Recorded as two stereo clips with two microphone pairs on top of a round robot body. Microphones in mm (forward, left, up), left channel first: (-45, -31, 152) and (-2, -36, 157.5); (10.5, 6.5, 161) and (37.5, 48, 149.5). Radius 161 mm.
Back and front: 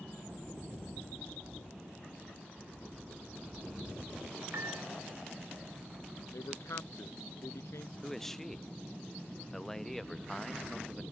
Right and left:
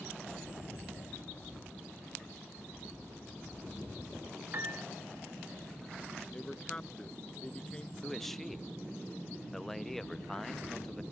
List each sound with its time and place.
4.5 s a piano: 20° left
6.3 s a man speaking: 160° left
8.0 s a man speaking: 125° left